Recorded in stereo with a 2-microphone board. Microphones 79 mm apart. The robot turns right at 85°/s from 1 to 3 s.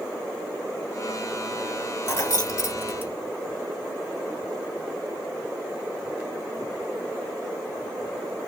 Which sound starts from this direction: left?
Keys jangling, at 2.1 s.